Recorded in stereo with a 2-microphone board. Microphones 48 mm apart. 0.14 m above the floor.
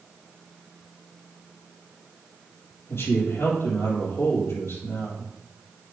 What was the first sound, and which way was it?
A man speaking, 65° left (ahead or behind).